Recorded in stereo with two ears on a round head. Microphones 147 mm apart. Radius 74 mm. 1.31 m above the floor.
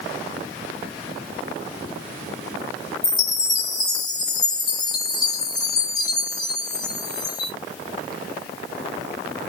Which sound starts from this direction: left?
A chime, at 3.0 s.